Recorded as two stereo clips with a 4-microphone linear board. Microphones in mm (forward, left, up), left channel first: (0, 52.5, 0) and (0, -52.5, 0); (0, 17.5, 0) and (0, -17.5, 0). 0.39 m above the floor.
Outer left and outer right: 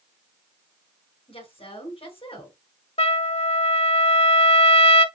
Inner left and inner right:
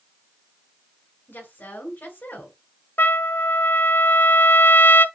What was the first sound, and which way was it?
A woman speaking, 60° left (ahead or behind).